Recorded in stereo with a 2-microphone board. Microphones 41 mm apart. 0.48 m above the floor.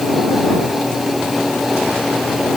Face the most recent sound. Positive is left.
No sound to turn to.